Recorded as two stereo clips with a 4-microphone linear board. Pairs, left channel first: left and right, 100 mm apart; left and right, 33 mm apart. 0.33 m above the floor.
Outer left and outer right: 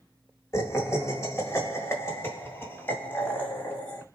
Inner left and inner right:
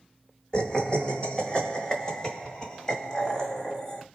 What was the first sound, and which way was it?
Laughter, 30° left (ahead or behind).